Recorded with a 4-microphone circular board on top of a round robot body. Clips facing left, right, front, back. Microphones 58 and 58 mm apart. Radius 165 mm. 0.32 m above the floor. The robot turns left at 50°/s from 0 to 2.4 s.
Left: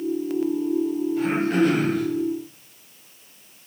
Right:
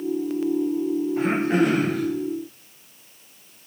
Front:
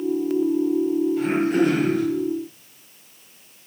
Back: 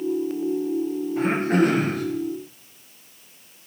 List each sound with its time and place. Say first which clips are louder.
1.2 s throat clearing: even, even; 135° right, 3 m; by 2.0 s straight behind, 3 m